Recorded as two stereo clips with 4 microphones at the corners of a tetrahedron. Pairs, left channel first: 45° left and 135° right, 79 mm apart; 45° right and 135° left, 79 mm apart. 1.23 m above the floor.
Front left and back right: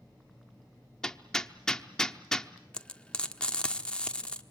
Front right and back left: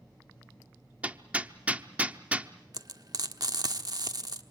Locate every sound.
1.0 s hammering: 110° left, 0.8 m
2.7 s frying: 120° left, 1.2 m